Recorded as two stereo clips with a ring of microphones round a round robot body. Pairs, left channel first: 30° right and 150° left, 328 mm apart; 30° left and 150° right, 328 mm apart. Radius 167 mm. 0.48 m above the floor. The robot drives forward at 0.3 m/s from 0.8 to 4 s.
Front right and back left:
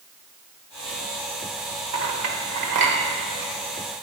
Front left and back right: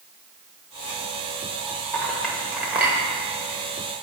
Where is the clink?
115° left, 1.1 m; by 3.0 s 125° left, 1.3 m.